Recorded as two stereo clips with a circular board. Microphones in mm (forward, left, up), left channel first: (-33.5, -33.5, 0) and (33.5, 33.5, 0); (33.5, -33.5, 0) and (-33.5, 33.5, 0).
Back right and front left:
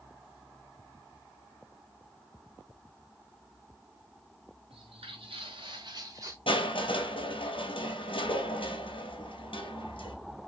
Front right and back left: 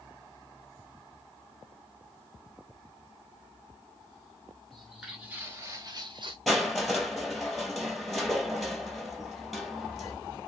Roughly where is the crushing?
Behind right.